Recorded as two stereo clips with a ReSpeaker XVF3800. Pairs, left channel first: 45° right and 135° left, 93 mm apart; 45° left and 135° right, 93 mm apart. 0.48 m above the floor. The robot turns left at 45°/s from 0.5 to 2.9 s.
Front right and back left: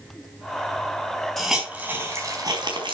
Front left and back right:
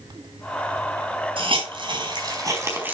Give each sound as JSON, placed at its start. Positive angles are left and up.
{"t": 1.4, "sound": "a hiss", "azimuth_deg": -135, "distance_m": 4.5}